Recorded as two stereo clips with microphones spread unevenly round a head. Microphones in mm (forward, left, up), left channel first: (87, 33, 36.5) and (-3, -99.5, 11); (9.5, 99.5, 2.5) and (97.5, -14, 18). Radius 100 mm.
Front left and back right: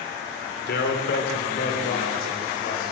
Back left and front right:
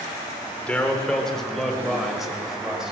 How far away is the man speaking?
About 3.5 m.